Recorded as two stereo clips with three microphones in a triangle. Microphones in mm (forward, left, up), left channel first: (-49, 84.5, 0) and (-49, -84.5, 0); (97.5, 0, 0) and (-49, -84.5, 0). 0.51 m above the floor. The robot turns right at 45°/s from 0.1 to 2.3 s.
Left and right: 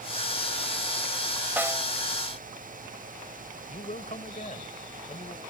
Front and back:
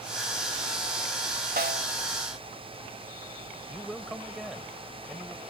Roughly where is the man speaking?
Behind left.